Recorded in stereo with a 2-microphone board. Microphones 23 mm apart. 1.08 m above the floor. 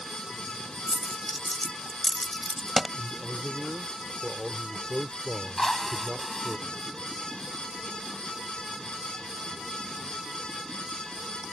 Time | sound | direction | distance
0.9 | a dropped coin | 5° left (ahead or behind) | ?
3.0 | a man speaking | 35° right (ahead or behind) | ?
5.6 | a drill | 25° left (ahead or behind) | ?